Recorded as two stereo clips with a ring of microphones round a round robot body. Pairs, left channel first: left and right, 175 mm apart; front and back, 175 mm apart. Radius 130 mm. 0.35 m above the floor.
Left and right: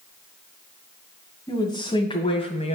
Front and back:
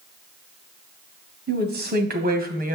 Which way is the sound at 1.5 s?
165° left.